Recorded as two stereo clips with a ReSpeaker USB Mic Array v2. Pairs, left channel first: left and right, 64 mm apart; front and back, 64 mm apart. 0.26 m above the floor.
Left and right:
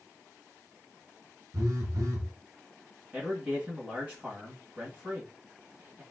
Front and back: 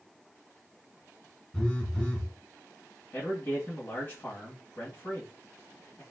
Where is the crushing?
No crushing in this recording.